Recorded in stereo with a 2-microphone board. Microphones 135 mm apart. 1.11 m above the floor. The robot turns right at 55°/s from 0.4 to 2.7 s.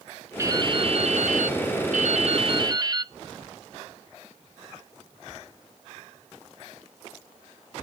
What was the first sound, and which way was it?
Dripping, 160° right.